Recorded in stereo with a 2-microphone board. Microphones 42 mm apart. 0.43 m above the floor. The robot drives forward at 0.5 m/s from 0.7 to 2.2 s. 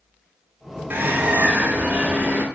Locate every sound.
0.9 s a bird: 60° right (ahead or behind), 0.7 m; by 2.5 s 35° right (ahead or behind), 1.2 m